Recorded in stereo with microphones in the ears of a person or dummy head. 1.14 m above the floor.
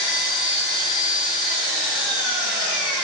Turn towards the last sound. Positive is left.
turn(degrees=0)  # may be behind; listen again after turning